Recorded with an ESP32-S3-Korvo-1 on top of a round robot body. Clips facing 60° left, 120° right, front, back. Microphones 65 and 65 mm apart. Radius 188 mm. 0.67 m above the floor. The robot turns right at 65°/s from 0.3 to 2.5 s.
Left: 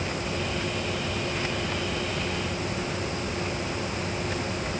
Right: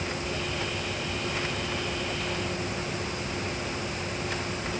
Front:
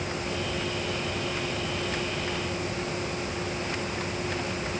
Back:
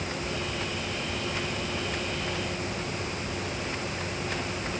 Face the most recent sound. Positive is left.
No sound to turn to.